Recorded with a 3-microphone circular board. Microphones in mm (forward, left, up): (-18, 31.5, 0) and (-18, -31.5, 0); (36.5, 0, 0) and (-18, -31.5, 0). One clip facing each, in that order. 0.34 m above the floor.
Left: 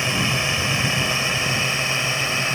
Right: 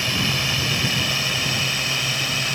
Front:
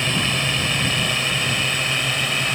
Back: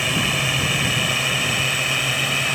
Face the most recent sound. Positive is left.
turn(degrees=125)